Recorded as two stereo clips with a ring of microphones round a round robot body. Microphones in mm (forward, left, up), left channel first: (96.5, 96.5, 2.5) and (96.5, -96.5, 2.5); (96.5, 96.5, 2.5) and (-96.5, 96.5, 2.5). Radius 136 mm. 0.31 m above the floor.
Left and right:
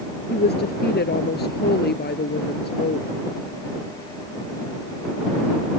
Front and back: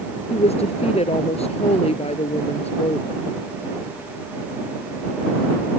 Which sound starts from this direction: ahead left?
A woman speaking, at 0.3 s.